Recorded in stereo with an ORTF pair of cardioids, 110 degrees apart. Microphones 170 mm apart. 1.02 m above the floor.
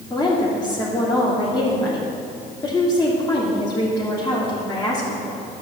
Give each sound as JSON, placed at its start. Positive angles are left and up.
{"t": 0.1, "sound": "a woman speaking", "azimuth_deg": 20, "distance_m": 3.0}